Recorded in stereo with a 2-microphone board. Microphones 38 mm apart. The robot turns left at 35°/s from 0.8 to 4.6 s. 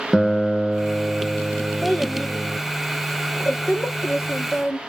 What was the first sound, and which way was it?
A guitar, 10° right (ahead or behind).